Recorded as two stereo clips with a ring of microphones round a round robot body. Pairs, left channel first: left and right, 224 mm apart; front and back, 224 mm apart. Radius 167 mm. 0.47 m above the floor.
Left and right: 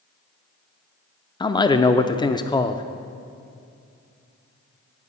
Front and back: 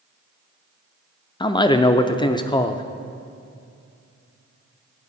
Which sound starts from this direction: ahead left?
A man speaking, at 1.4 s.